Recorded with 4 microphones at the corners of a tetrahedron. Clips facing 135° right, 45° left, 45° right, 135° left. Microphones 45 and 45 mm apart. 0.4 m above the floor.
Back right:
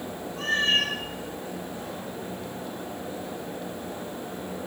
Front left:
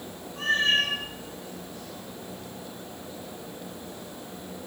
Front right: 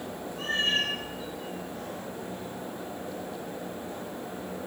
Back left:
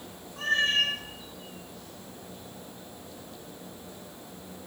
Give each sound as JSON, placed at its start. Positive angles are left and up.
{"t": 0.4, "sound": "a cat meowing", "azimuth_deg": 90, "distance_m": 7.5}